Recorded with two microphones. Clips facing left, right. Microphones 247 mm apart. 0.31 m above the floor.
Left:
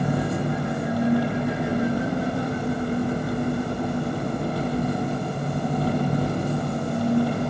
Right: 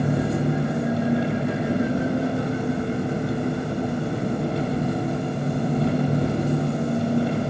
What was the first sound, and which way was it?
An engine running, 25° right (ahead or behind).